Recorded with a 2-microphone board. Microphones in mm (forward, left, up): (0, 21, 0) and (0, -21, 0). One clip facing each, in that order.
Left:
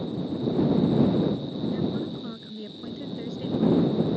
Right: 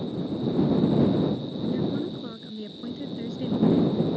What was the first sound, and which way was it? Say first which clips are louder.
A woman speaking: right 2 dB; centre (ahead or behind).